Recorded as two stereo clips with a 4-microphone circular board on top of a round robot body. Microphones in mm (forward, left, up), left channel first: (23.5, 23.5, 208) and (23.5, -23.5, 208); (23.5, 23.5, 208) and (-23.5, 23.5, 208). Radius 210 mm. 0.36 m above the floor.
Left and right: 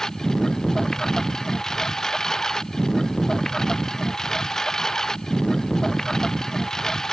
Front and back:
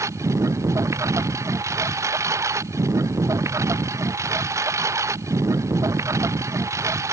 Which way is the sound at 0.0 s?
170° left.